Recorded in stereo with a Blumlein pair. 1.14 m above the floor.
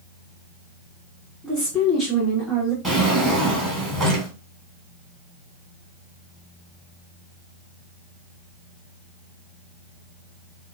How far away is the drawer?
About 1.6 m.